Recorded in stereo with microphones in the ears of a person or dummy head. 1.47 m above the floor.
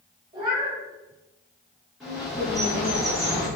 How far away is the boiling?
No boiling in this recording.